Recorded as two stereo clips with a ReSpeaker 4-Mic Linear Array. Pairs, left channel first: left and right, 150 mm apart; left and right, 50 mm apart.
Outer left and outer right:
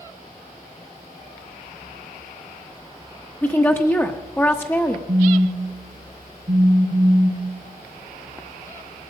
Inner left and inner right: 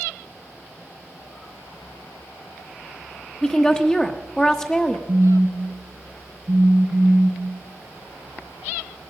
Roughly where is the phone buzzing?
Right.